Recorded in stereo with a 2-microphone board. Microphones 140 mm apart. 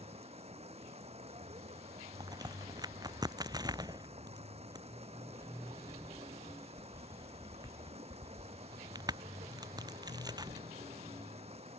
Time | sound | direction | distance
0.0 | running water | 50° right (ahead or behind) | ?
2.2 | a crack | 30° right (ahead or behind) | ?